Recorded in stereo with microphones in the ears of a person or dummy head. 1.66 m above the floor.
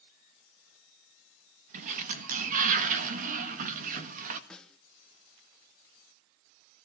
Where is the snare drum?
5° left (ahead or behind), 1.5 m.